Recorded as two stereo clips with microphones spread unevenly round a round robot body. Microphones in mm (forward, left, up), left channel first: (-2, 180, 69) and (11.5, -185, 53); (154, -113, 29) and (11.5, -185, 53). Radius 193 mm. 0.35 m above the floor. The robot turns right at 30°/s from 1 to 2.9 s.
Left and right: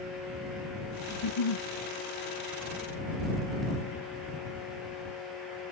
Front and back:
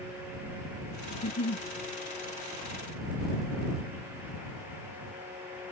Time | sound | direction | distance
1.1 | a giggle | 50° left | ?